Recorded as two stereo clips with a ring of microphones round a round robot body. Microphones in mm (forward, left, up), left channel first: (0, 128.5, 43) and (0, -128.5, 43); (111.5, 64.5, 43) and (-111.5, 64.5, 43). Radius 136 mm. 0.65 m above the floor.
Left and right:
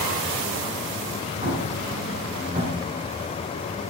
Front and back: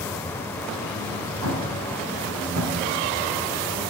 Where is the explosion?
155° right, 4 m.